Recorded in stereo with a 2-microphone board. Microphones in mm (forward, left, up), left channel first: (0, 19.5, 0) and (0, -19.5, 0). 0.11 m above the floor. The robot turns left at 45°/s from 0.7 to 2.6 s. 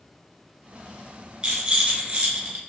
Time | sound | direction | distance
1.4 | a rattle | 35° right | 1.0 m